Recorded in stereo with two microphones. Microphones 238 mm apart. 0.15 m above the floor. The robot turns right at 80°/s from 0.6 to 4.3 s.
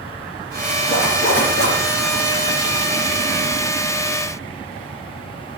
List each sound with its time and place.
0.9 s a zipper: 40° left, 3 m; by 1.8 s 105° left, 3 m